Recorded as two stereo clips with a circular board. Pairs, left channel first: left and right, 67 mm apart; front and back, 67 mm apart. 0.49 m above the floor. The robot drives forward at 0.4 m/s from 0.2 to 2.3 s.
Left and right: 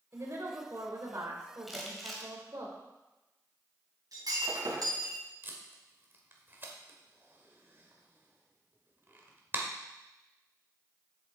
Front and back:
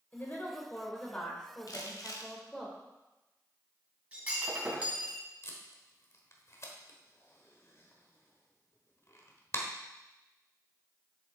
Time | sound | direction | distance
0.1 | a woman speaking | 55° right | 2.0 m
1.7 | crumpling | straight ahead | 1.6 m
4.1 | breaking glass | 110° right | 2.5 m
5.4 | tape being pulled | 35° right | 1.4 m